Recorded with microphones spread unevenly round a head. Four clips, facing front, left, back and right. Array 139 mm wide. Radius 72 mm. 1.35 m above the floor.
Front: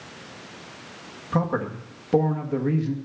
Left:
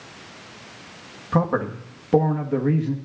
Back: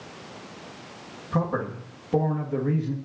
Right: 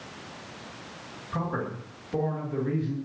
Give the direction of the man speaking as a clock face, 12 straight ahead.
10 o'clock.